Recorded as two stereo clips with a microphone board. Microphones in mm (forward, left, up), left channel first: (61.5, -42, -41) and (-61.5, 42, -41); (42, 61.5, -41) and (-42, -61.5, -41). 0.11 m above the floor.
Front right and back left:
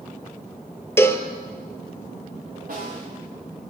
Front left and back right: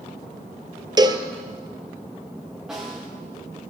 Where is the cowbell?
95° right, 0.6 m.